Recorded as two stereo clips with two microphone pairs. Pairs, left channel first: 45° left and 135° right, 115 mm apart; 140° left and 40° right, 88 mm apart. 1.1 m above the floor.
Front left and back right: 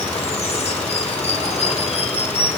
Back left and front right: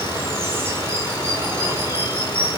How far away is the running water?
About 3 m.